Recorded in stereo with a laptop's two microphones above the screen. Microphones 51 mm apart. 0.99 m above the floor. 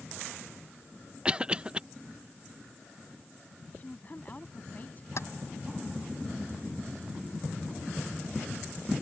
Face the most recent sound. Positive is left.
turn(degrees=65)  # may be behind; listen again after turning